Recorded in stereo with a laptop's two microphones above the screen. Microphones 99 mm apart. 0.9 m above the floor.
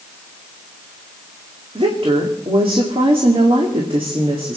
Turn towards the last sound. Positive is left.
turn(degrees=-70)  # may be behind; listen again after turning